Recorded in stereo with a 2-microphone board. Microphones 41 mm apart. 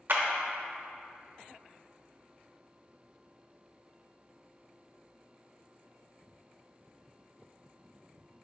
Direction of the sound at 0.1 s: 55° right (ahead or behind).